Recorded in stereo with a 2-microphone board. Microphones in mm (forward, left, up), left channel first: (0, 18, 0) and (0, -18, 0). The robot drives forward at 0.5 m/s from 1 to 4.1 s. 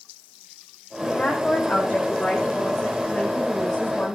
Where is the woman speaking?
50° left (ahead or behind), 6 m; by 4.2 s 40° left (ahead or behind), 7.5 m.